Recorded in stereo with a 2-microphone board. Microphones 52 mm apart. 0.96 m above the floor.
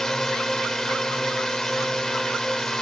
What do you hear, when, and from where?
0.0 s a drone: 15° left (ahead or behind)